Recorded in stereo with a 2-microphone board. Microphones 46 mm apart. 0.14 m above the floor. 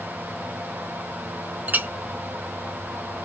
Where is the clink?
40° right (ahead or behind), 0.8 m.